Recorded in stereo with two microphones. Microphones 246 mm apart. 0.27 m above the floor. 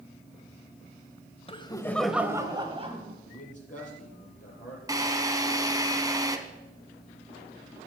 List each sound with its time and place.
1.5 s laughter: 25° left (ahead or behind), 1.0 m; by 3.1 s 30° right (ahead or behind), 1.6 m
3.2 s a man speaking: 30° left (ahead or behind), 5.5 m
4.9 s a drill: 15° right (ahead or behind), 1.2 m